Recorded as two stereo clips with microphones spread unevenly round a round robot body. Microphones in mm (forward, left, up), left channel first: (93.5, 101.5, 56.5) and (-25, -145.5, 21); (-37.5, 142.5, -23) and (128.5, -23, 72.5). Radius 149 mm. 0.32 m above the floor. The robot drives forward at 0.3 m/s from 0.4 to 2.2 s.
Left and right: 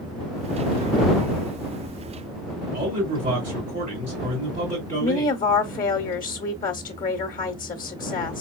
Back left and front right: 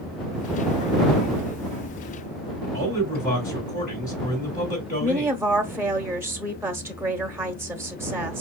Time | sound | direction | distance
2.7 | a man speaking | 170° right | 1.7 m
5.0 | a woman speaking | 80° left | 0.9 m